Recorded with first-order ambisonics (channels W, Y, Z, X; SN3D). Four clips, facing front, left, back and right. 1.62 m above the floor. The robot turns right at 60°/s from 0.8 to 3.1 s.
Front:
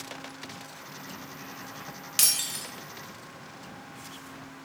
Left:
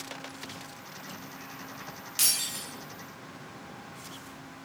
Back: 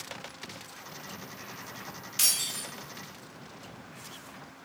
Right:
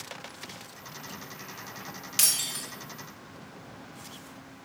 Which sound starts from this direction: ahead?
Breaking glass, at 2.2 s.